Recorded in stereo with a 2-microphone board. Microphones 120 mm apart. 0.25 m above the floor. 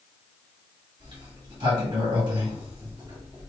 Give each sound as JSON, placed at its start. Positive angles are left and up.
{"t": 1.0, "sound": "a sliding door", "side_deg": -40, "distance_m": 1.9}